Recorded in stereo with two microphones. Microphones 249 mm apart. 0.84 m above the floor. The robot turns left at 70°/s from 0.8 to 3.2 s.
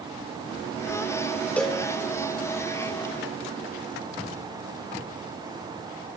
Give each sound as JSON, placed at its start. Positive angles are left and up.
{"t": 1.6, "sound": "a cowbell", "side_deg": 5, "distance_m": 1.6}